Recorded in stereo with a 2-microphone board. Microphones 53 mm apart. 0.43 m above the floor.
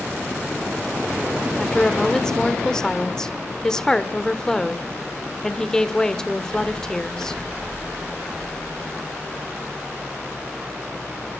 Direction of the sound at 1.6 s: 10° left (ahead or behind).